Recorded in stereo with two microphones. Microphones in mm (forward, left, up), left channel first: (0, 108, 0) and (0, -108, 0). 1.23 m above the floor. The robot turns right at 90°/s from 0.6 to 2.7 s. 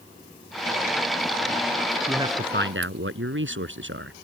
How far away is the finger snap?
I don't hear a finger snap.